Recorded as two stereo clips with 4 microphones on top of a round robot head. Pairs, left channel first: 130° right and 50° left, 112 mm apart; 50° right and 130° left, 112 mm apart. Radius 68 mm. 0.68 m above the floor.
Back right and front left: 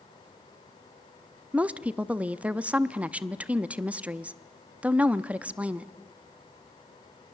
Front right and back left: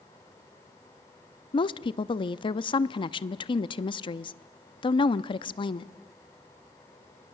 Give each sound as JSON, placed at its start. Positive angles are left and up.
{"t": 1.5, "sound": "a woman speaking", "azimuth_deg": -25, "distance_m": 0.7}